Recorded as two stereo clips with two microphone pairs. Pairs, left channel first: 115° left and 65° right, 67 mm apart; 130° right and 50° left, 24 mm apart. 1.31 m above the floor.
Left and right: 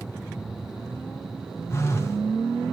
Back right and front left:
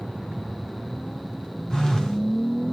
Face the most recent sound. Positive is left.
turn(degrees=165)